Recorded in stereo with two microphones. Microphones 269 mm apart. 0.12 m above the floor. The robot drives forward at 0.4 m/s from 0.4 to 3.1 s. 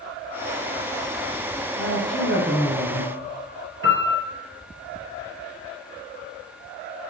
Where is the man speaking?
40° right (ahead or behind), 2 m; by 3.1 s 35° right (ahead or behind), 2.5 m.